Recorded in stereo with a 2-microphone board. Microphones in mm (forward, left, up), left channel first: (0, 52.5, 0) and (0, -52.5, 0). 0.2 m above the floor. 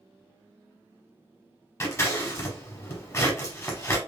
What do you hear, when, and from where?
1.8 s scissors: 25° left (ahead or behind), 0.9 m